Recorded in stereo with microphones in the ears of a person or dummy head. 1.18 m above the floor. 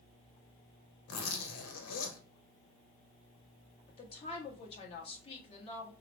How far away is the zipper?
About 1.0 m.